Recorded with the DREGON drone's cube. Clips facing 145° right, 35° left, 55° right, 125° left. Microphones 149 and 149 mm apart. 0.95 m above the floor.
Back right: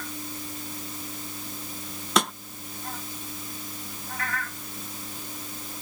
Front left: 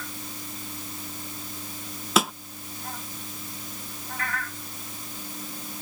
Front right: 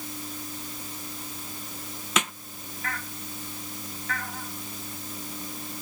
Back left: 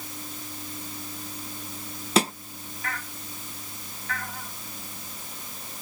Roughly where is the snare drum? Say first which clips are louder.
Front left 1 dB, back left 7 dB; behind left.